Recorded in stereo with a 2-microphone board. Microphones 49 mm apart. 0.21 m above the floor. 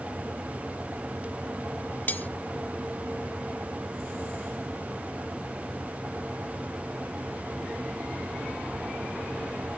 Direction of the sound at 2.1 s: 35° left (ahead or behind).